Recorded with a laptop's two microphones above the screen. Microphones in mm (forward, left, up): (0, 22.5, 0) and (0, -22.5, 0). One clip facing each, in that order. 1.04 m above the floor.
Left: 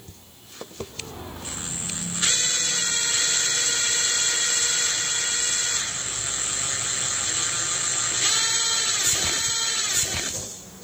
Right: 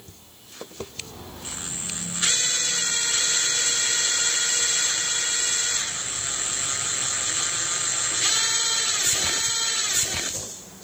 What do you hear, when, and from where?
0.9 s footsteps: 15° left (ahead or behind), 5.5 m; by 10.8 s 50° right (ahead or behind), 11.5 m